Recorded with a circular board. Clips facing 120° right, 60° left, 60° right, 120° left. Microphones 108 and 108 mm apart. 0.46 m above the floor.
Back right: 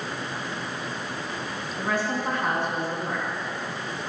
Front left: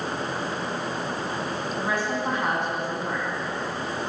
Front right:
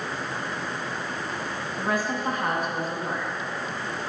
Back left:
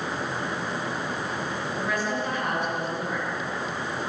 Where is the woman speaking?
15° right, 3.5 m.